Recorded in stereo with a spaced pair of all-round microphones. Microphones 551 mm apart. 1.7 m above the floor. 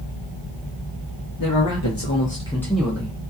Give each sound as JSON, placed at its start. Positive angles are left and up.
{"t": 1.4, "sound": "a man speaking", "side_deg": 40, "distance_m": 0.7}